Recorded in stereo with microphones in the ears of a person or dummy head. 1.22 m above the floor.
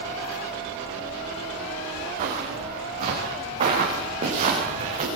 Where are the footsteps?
35° right (ahead or behind), 10 m; by 5.1 s 25° right (ahead or behind), 9 m.